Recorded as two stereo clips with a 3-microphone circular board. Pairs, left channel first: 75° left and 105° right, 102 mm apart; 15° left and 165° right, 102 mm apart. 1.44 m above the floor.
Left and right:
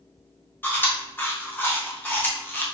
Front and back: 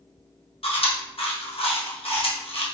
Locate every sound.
0.6 s chewing: 5° left, 1.1 m